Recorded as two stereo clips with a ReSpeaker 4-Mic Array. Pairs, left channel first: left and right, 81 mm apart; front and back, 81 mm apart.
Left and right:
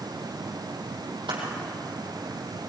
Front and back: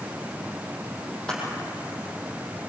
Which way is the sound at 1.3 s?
80° right.